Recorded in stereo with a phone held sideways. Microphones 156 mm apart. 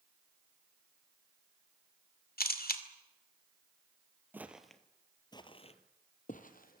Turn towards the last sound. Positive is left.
turn(degrees=65)  # may be behind; listen again after turning